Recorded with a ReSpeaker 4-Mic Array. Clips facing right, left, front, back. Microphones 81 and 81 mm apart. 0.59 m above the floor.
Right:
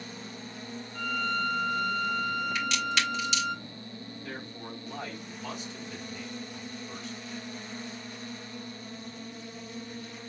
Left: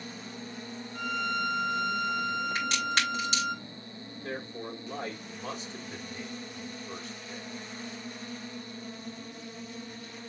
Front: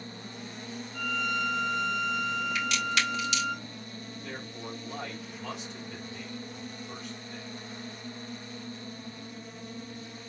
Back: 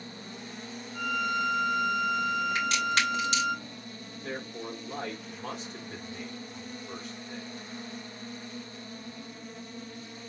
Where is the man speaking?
135° left, 2.5 m.